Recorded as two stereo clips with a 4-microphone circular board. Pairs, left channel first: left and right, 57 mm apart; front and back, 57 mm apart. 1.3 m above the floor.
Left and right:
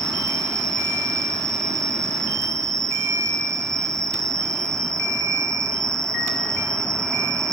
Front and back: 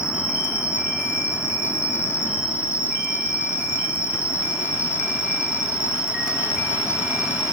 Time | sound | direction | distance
0.0 | an insect | 110° right | 3.5 m